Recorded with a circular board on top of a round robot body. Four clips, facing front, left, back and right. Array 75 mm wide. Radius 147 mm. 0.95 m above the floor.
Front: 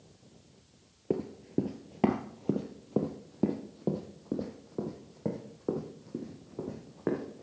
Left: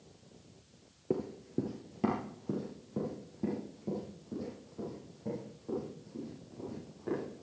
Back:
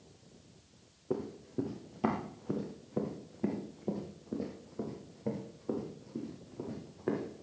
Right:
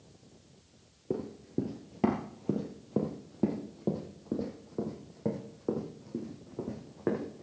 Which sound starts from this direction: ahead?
Running footsteps, at 1.1 s.